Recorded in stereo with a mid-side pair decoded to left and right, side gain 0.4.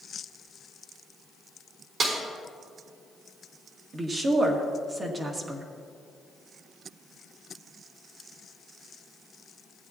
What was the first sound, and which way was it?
A snare drum, 55° right.